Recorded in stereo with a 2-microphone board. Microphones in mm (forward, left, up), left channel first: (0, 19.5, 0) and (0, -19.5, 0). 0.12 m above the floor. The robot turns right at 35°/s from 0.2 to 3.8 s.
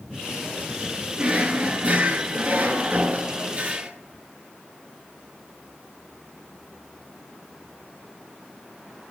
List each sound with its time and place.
1.2 s a drawer: 140° right, 0.8 m; by 3.9 s 50° right, 0.8 m